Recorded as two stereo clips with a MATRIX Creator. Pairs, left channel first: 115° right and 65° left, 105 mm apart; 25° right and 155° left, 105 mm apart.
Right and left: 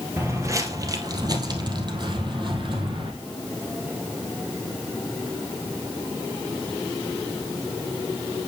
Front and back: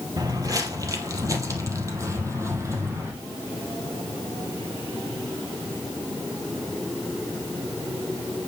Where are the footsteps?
120° left, 1.8 m; by 3.1 s 95° left, 3 m.